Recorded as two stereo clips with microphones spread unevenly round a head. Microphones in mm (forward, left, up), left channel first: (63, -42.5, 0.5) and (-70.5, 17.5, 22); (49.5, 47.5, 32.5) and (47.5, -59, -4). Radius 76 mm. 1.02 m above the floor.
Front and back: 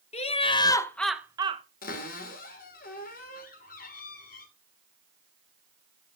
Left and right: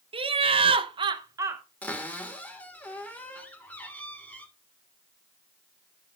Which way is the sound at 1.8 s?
15° left.